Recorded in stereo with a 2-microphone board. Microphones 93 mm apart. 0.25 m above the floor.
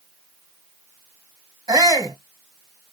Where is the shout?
40° right (ahead or behind), 1.5 m.